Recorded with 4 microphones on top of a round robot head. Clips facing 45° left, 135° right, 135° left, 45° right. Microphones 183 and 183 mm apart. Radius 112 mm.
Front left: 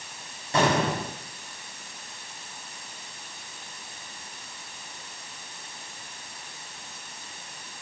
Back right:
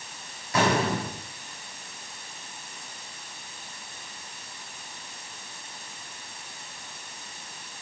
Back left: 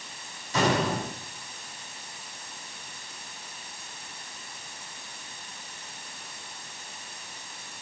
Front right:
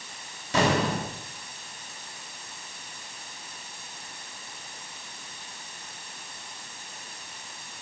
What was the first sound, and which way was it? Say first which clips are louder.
An explosion: front left 1 dB, front right 1 dB; 15° right.